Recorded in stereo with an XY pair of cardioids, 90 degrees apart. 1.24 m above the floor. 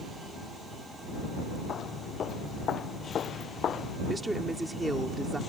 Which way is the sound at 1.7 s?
65° left.